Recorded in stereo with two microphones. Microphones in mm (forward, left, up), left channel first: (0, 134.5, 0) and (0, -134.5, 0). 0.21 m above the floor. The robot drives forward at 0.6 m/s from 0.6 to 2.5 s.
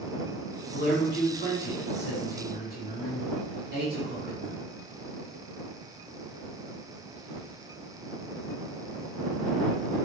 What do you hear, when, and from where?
0.7 s a man speaking: 40° left (ahead or behind), 2.0 m; by 4.6 s 35° left (ahead or behind), 2 m